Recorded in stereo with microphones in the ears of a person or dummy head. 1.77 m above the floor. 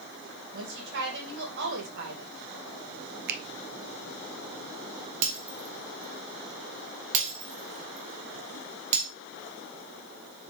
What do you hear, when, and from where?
0.5 s a woman speaking: 70° right (ahead or behind), 2.5 m
3.3 s a finger snap: 60° right (ahead or behind), 0.6 m
5.2 s breaking glass: 35° right (ahead or behind), 1.8 m